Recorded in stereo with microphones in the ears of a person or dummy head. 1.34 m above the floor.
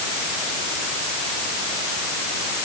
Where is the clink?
No clink in this recording.